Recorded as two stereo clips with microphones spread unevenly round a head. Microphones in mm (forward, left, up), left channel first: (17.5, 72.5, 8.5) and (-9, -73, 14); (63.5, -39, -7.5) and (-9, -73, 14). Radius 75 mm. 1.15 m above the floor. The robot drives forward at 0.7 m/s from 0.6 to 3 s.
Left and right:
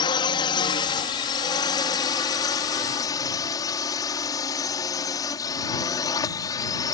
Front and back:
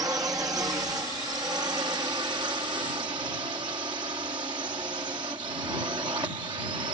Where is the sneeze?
No sneeze in this recording.